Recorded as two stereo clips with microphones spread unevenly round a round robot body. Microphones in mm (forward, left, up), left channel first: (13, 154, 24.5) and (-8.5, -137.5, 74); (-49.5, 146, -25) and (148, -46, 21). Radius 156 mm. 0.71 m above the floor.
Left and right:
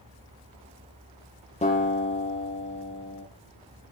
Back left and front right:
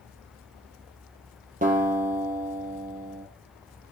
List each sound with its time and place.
1.6 s a guitar: 15° left, 4 m